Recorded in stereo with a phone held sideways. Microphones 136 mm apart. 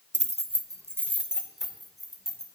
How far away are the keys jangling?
About 0.6 m.